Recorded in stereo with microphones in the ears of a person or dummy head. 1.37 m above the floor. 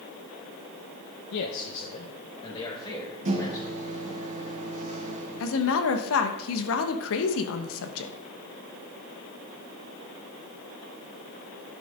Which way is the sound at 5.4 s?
75° left (ahead or behind).